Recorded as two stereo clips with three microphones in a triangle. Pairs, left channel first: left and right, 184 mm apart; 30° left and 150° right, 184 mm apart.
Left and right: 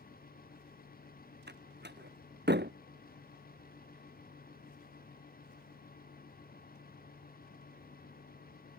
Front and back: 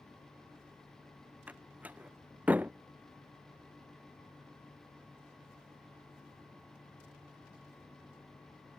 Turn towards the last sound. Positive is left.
turn(degrees=-70)